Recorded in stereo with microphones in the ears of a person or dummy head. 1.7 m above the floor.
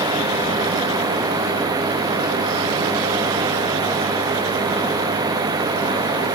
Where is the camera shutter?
No camera shutter in this recording.